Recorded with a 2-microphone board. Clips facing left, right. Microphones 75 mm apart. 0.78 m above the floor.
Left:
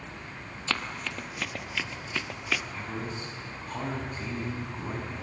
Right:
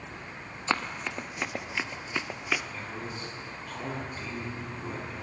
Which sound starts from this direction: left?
A man speaking, at 2.7 s.